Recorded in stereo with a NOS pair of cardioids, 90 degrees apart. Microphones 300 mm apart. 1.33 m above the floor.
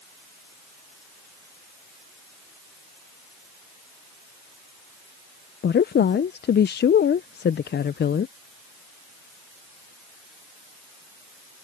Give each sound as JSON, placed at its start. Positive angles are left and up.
{"t": 5.6, "sound": "a woman speaking", "azimuth_deg": 35}